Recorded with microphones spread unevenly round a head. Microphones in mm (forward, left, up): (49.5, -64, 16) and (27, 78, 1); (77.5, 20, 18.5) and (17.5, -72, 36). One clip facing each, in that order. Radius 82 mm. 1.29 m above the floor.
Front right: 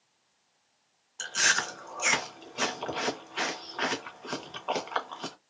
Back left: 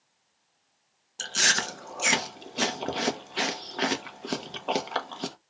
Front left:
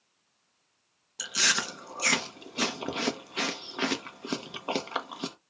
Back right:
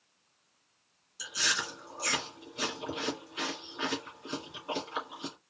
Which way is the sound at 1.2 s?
45° left.